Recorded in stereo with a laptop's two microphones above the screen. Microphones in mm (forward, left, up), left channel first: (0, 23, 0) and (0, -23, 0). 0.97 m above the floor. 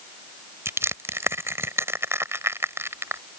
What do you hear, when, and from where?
0.7 s crushing: 75° right (ahead or behind)